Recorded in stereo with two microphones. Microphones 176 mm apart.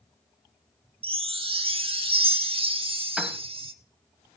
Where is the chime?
30° right (ahead or behind), 0.7 m.